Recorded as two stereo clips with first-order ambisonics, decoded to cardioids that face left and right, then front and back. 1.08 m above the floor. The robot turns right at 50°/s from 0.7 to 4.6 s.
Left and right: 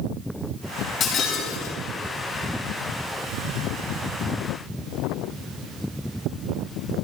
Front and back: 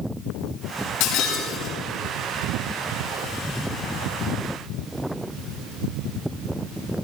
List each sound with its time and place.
1.0 s breaking glass: 25° left, 4.5 m; by 1.8 s 60° left, 4.5 m